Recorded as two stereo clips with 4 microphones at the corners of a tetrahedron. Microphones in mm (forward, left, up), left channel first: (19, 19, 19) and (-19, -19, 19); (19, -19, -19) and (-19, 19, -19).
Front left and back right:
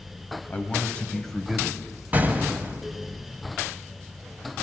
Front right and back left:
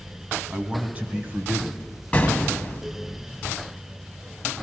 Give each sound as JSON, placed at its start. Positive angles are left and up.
{"t": 0.5, "sound": "a man speaking", "azimuth_deg": 75, "distance_m": 1.3}
{"t": 2.1, "sound": "an explosion", "azimuth_deg": -100, "distance_m": 1.0}